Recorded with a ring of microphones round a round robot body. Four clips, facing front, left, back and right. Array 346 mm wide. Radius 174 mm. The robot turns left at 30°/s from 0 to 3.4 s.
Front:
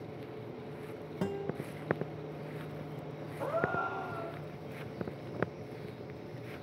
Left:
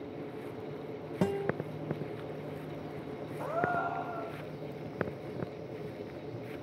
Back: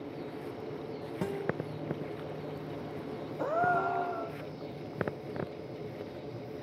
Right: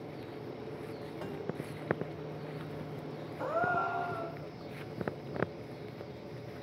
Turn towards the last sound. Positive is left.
turn(degrees=-170)